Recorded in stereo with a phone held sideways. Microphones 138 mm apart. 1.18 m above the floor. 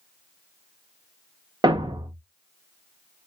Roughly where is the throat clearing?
I don't hear throat clearing.